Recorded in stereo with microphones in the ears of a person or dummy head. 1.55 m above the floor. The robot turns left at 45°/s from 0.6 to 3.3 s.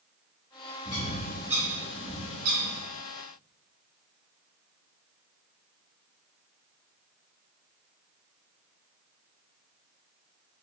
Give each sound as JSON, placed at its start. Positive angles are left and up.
{"t": 0.8, "sound": "a bird", "side_deg": 20, "distance_m": 1.1}